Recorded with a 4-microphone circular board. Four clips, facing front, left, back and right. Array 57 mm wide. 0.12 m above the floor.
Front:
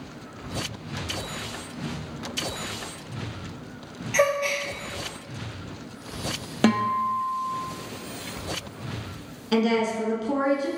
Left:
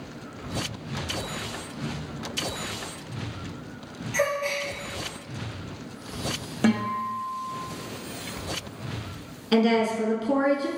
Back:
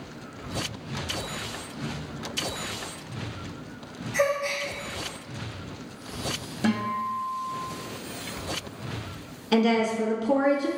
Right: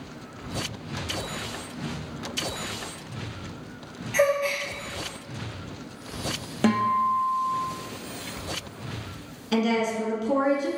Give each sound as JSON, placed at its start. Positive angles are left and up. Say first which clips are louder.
{"t": 4.1, "sound": "a gasp", "louder": "right 3 dB, front 3 dB", "azimuth_deg": -15, "distance_m": 0.8}
{"t": 6.6, "sound": "a guitar", "louder": "right 3 dB, front 5 dB", "azimuth_deg": -5, "distance_m": 0.7}
{"t": 9.5, "sound": "a woman speaking", "louder": "left 3 dB, even", "azimuth_deg": 85, "distance_m": 1.0}